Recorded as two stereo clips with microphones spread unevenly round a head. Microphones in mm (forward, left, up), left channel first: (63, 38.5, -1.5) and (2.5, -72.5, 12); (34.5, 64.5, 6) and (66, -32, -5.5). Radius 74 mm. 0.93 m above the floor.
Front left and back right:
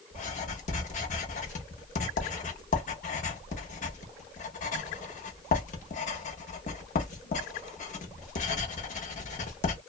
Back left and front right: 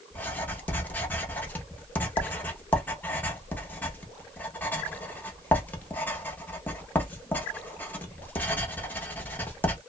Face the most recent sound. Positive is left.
turn(degrees=40)